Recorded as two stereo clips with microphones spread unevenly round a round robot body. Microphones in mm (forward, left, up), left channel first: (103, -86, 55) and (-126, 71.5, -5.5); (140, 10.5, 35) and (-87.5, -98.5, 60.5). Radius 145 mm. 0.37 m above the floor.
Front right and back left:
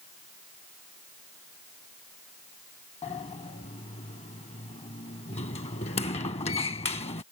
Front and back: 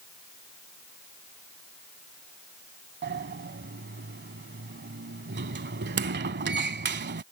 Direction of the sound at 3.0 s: 105° right.